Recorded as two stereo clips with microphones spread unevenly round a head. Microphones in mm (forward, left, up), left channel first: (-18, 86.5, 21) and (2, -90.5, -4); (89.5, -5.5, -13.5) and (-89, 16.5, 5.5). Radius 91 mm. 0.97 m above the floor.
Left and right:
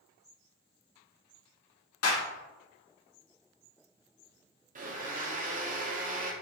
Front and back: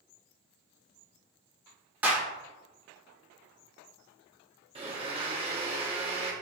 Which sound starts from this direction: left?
A clap, at 2.0 s.